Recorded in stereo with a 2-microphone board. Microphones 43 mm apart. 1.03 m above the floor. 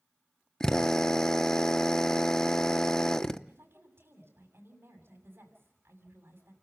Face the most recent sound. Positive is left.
turn(degrees=-75)  # may be behind; listen again after turning